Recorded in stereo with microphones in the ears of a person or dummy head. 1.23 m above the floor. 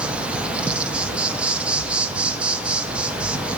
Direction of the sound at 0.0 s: 5° right (ahead or behind).